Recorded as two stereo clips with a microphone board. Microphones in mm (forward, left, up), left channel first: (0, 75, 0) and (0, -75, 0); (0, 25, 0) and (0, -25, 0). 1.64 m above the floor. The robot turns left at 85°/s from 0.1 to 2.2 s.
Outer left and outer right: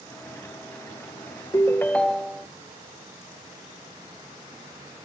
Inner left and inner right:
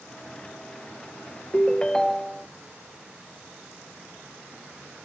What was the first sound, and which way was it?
A ringtone, 20° left (ahead or behind).